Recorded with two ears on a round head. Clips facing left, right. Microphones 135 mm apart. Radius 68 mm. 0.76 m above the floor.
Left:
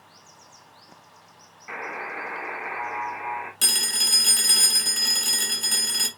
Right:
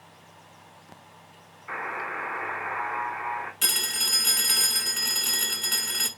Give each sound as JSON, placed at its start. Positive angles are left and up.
{"t": 1.7, "sound": "a buzzer", "side_deg": 25, "distance_m": 1.4}
{"t": 3.6, "sound": "a phone ringing", "side_deg": 45, "distance_m": 1.0}